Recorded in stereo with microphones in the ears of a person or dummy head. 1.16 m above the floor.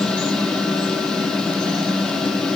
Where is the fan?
5° left (ahead or behind), 0.8 m.